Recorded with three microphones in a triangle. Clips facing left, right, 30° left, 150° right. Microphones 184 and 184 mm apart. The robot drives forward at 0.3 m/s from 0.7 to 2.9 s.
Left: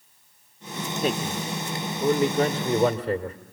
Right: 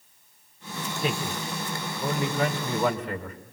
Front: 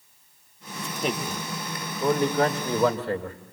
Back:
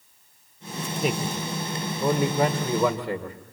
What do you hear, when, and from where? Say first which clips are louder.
1.0 s a man speaking: left 3 dB, back 2 dB; 125° left, 1.7 m; by 3.4 s 140° left, 2.0 m